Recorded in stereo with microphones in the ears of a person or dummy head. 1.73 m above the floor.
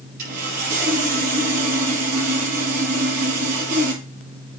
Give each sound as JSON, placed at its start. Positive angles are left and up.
{"t": 0.2, "sound": "sawing", "side_deg": -55, "distance_m": 5.5}